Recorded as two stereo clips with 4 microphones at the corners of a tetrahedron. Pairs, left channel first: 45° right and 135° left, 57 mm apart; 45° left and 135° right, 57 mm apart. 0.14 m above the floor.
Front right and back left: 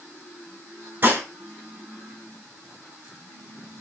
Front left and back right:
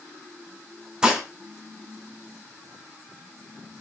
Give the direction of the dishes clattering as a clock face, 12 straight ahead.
7 o'clock.